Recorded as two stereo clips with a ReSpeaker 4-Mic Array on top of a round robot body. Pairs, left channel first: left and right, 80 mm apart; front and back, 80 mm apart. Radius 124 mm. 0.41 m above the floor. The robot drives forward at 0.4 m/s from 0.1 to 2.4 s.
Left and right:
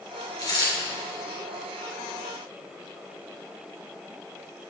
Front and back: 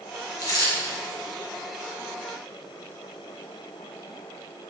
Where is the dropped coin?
50° left, 2.5 m.